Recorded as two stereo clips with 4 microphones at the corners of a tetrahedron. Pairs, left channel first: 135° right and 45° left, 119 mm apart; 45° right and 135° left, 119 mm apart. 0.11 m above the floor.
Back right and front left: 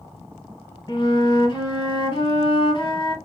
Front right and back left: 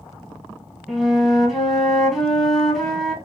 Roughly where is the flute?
Behind right.